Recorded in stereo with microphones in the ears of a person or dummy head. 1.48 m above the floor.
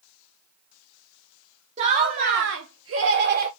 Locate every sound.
1.8 s laughter: 30° right (ahead or behind), 0.8 m; by 3.5 s 50° right (ahead or behind), 0.6 m